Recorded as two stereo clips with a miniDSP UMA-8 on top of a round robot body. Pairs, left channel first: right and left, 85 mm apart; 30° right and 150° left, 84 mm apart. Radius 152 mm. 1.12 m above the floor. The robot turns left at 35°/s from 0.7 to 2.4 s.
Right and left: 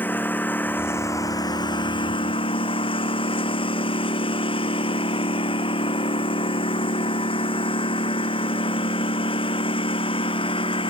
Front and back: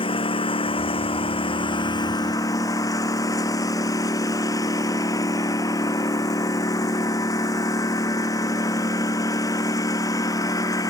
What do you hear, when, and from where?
0.0 s a lawn mower: 20° right; by 10.9 s 80° right